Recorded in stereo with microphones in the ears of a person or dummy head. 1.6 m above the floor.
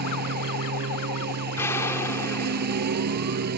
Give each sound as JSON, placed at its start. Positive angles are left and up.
{"t": 0.0, "sound": "a lawn mower", "side_deg": -45}
{"t": 1.6, "sound": "an explosion", "side_deg": 5}